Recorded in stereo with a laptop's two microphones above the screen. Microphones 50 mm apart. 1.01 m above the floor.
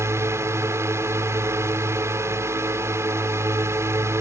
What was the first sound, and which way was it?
A drone, 70° right (ahead or behind).